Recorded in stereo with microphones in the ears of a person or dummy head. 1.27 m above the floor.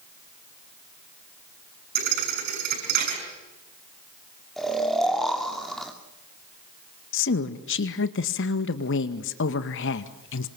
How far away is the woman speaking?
About 1.8 m.